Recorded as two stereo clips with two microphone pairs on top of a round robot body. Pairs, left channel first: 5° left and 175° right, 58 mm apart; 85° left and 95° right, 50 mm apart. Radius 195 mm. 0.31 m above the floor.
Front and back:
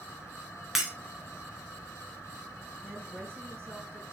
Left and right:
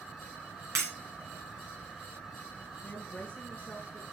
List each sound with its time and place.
0.8 s breaking glass: 95° right, 2.5 m
2.8 s a woman speaking: 140° left, 4.5 m